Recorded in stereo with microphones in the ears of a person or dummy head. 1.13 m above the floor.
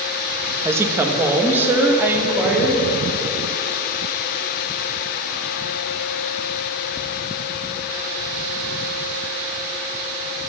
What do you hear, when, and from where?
0.7 s a woman speaking: 15° right (ahead or behind), 0.9 m